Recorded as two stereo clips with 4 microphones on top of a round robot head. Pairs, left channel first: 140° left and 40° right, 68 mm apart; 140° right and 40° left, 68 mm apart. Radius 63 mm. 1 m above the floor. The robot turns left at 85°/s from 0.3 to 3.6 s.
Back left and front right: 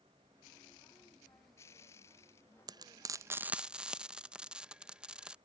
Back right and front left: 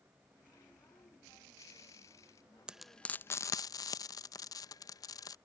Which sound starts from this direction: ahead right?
Frying, at 2.7 s.